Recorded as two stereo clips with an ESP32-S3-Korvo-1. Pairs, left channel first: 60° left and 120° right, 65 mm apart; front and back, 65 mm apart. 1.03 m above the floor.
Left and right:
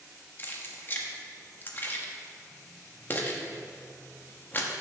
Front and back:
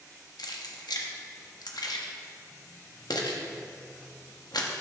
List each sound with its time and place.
0.4 s keys jangling: 5° left, 1.0 m